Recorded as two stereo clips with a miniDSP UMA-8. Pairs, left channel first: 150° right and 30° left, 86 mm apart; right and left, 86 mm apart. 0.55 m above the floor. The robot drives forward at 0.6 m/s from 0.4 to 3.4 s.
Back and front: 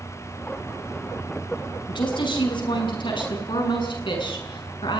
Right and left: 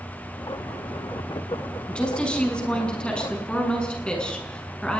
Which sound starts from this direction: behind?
A woman speaking, at 1.9 s.